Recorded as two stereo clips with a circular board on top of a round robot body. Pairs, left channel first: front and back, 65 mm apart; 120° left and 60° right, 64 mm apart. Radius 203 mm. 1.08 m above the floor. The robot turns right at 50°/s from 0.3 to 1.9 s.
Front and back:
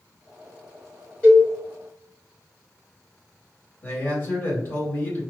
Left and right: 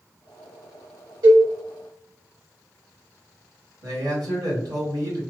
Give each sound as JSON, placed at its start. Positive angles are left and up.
{"t": 1.2, "sound": "a cowbell", "azimuth_deg": -70, "distance_m": 1.4}
{"t": 3.8, "sound": "a man speaking", "azimuth_deg": -55, "distance_m": 1.7}